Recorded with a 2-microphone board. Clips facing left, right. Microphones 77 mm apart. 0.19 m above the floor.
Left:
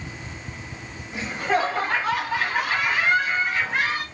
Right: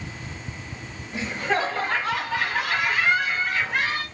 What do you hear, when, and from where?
1.1 s laughter: 15° left (ahead or behind), 1.8 m